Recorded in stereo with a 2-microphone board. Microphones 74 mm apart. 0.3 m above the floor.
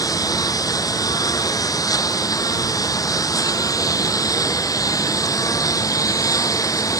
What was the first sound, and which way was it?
A lawn mower, 60° left (ahead or behind).